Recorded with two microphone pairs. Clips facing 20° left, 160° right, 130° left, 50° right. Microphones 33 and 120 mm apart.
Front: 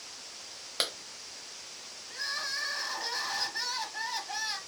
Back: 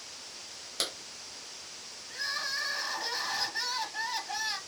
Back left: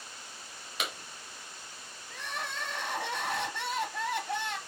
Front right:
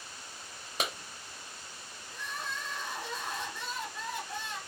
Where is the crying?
110° left, 0.6 m.